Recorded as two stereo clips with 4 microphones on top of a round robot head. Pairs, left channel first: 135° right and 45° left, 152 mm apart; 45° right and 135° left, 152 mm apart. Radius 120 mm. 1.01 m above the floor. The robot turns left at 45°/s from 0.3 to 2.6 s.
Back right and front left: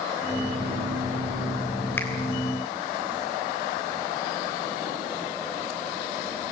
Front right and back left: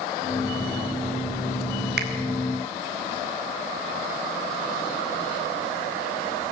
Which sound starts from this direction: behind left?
A finger snap, at 2.0 s.